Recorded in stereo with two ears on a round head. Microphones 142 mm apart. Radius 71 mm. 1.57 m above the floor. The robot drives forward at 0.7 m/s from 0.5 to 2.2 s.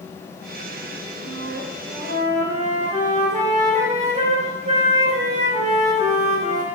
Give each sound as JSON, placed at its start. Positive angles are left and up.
{"t": 1.2, "sound": "a flute", "side_deg": -70, "distance_m": 0.6}